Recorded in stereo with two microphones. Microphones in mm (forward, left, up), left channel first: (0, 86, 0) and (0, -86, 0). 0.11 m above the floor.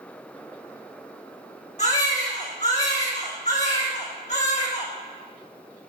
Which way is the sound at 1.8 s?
45° left (ahead or behind).